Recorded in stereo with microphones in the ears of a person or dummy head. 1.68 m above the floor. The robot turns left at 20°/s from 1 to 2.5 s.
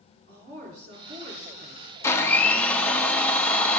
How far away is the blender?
About 0.9 m.